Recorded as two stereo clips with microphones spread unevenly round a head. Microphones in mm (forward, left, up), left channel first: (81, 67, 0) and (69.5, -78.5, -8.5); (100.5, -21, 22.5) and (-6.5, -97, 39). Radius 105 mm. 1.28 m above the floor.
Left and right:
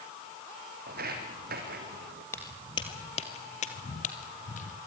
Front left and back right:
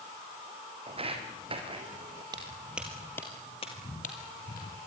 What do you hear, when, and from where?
0.9 s footsteps: 110° right, 3 m; by 2.2 s 105° right, 3.5 m
2.3 s footsteps: 155° left, 2 m; by 4.8 s 70° left, 3 m